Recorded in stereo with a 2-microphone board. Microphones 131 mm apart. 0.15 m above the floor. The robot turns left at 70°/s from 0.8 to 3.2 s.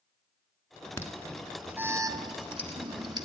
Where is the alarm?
20° left (ahead or behind), 1.3 m; by 3.2 s 30° right (ahead or behind), 1.3 m.